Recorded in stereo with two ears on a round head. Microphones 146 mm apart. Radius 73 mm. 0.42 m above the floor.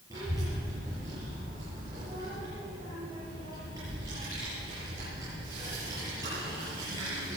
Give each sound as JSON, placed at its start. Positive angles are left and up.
{"t": 0.1, "sound": "a child speaking", "side_deg": -20, "distance_m": 7.0}